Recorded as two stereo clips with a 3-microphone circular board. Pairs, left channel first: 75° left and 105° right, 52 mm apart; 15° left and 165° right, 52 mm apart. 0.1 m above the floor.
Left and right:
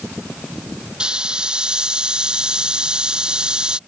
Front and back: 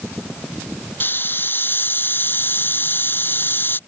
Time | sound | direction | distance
1.0 | a hiss | 30° right | ?